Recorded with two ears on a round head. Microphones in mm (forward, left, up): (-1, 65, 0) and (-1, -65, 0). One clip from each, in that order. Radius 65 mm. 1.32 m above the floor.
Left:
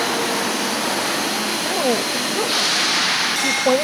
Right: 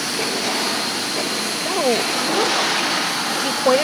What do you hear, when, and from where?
1.6 s a woman speaking: 80° right